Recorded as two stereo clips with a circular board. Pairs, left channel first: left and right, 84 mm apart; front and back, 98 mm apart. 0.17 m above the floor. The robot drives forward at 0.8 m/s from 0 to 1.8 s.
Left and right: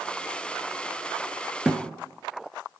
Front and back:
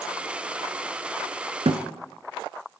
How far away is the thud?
About 0.5 m.